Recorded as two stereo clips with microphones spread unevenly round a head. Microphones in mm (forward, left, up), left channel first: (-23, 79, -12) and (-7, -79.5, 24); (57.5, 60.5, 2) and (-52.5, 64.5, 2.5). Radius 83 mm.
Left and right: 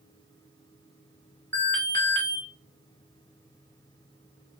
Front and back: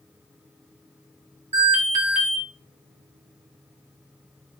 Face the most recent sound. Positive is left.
turn(degrees=170)